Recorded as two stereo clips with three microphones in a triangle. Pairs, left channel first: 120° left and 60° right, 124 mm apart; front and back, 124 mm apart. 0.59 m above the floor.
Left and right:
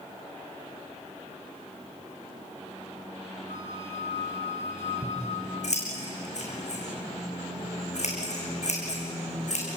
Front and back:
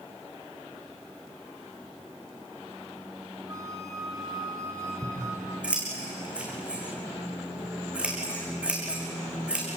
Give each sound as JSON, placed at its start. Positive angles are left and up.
{"t": 3.5, "sound": "a flute", "azimuth_deg": 115, "distance_m": 3.5}
{"t": 5.0, "sound": "scissors", "azimuth_deg": 100, "distance_m": 6.5}